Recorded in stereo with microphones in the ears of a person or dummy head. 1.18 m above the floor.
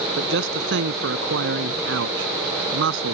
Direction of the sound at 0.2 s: 65° right (ahead or behind).